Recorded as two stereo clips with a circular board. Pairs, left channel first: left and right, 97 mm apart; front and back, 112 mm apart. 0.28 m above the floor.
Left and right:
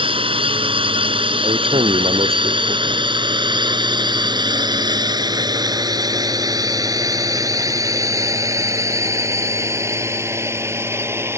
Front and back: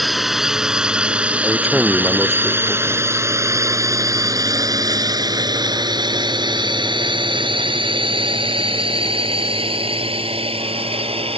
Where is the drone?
90° right; by 11.4 s 150° right.